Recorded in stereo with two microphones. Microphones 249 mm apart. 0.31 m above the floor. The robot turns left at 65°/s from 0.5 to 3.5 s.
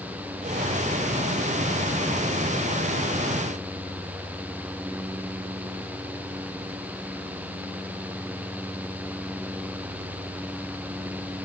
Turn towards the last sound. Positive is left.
No sound to turn to.